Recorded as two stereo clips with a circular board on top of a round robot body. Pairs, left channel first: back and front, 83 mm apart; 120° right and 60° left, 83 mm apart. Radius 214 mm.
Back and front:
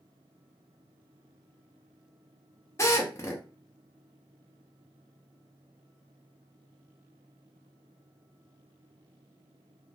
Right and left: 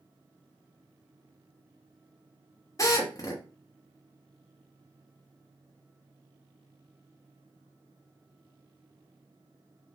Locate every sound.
2.8 s a drill: 145° right, 1.0 m